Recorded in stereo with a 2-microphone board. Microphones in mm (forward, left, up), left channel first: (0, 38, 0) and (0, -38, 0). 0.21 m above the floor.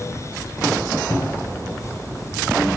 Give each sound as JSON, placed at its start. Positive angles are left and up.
{"t": 1.1, "sound": "a cupboard door", "side_deg": 40, "distance_m": 1.1}